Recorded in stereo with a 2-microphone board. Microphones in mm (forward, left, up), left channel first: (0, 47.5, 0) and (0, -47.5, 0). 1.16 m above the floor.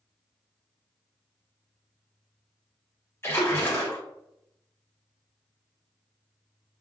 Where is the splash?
25° left (ahead or behind), 0.8 m.